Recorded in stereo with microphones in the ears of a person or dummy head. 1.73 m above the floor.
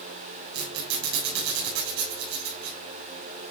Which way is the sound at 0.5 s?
80° right.